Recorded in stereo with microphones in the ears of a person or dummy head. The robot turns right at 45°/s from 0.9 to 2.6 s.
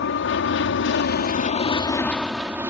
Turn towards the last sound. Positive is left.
turn(degrees=-20)  # may be behind; listen again after turning